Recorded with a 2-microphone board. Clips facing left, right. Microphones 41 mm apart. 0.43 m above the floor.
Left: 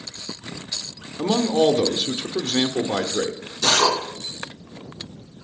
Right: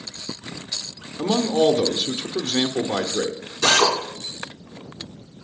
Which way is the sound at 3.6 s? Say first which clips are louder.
Right 1 dB; 30° right (ahead or behind).